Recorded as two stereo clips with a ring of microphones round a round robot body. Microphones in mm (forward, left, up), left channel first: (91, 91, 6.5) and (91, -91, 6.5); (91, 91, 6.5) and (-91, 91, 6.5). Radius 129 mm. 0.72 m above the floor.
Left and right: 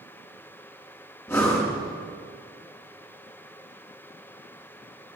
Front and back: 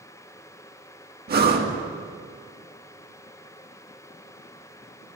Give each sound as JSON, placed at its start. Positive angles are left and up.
{"t": 1.3, "sound": "breathing", "azimuth_deg": 165, "distance_m": 1.5}